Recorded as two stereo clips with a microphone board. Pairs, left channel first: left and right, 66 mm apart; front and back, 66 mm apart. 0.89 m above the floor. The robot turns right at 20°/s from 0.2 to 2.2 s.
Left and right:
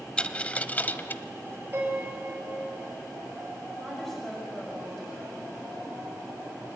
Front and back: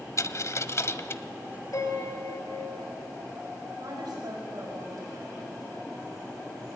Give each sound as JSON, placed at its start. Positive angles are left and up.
{"t": 0.2, "sound": "a dropped coin", "azimuth_deg": 20, "distance_m": 1.0}
{"t": 1.7, "sound": "a piano", "azimuth_deg": -30, "distance_m": 4.5}
{"t": 3.8, "sound": "a woman speaking", "azimuth_deg": 175, "distance_m": 5.5}